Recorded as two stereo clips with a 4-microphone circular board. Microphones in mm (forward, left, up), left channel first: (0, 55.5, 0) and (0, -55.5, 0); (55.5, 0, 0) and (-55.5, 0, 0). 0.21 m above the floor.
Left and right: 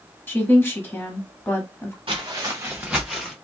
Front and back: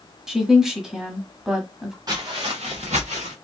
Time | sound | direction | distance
0.3 | a woman speaking | 105° left | 1.0 m
2.1 | footsteps | 130° right | 1.4 m